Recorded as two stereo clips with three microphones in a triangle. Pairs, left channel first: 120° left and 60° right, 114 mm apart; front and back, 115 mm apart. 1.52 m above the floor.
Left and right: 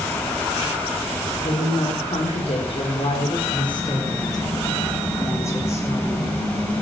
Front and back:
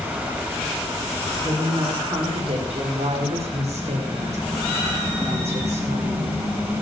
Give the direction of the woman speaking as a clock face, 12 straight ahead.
7 o'clock.